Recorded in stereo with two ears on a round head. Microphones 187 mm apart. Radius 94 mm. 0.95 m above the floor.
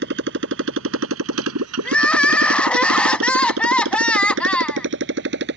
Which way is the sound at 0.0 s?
55° right (ahead or behind).